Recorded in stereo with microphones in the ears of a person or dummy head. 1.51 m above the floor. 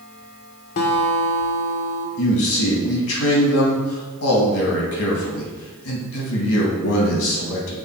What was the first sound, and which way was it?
A guitar, 40° left (ahead or behind).